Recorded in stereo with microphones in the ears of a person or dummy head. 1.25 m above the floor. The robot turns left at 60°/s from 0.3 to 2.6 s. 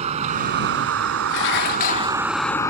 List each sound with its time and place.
0.0 s a vehicle: 40° right (ahead or behind); by 2.7 s 15° left (ahead or behind)
1.3 s dishes clattering: 85° left; by 2.2 s 30° left